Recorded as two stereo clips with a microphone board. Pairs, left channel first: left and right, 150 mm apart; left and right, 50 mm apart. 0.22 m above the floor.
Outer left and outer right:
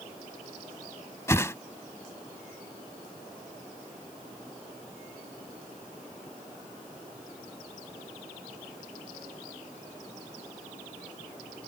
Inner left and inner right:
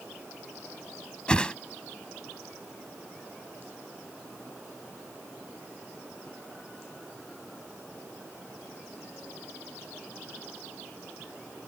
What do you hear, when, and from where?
1.3 s a whoosh: 20° left (ahead or behind)